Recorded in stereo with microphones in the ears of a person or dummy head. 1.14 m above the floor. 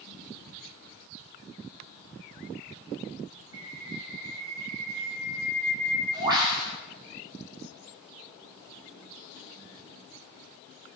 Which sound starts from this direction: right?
A bird, at 3.5 s.